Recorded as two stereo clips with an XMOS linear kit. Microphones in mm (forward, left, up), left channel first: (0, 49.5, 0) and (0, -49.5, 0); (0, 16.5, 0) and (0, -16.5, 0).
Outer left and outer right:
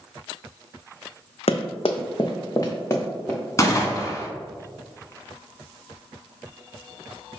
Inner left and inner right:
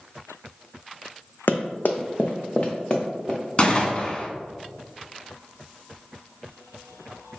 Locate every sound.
1.5 s running footsteps: 80° left, 0.5 m; by 3.4 s 25° left (ahead or behind), 1.3 m
3.6 s a gunshot: 30° left (ahead or behind), 0.6 m